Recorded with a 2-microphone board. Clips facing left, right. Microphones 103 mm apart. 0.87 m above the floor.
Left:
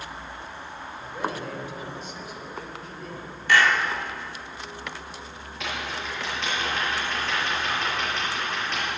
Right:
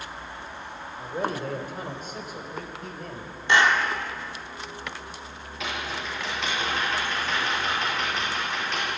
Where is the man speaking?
40° right (ahead or behind), 2.5 m; by 3.3 s 50° right (ahead or behind), 4.5 m.